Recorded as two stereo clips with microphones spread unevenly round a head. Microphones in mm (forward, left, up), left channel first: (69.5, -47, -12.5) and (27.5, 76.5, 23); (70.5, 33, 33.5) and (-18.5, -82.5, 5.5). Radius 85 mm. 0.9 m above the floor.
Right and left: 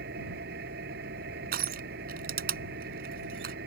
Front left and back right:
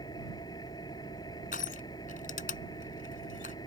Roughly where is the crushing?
Left.